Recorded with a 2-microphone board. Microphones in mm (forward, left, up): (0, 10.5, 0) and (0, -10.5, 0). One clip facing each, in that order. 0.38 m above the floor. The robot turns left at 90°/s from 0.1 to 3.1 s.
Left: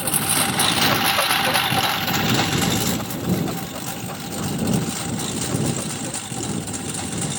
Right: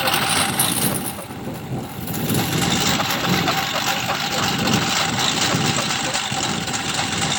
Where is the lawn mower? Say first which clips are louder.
Right 4 dB; 30° right (ahead or behind); by 7.4 s 40° right (ahead or behind).